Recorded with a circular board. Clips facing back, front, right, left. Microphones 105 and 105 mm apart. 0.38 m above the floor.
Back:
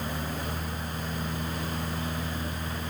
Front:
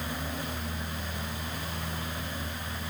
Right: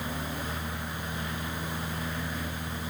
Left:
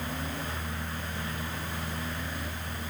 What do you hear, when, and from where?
Only background noise.